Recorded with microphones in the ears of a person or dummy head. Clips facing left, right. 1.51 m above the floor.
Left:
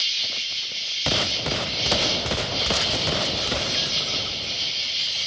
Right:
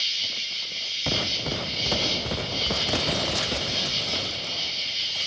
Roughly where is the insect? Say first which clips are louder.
Left 2 dB; left.